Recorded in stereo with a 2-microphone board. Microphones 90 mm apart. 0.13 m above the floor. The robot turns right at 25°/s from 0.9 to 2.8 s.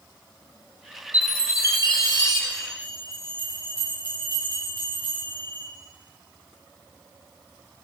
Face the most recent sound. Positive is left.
turn(degrees=-35)  # may be behind; listen again after turning